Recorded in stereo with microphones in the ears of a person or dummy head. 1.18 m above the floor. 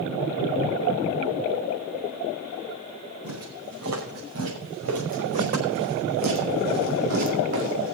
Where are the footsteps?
75° right (ahead or behind), 5 m; by 8.0 s 60° right (ahead or behind), 2.5 m.